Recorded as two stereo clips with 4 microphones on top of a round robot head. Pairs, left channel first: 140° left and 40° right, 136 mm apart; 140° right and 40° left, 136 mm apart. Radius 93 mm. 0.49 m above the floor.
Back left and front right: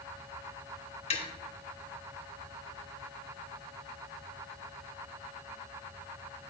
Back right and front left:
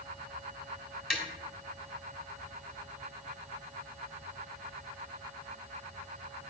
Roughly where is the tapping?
Behind left.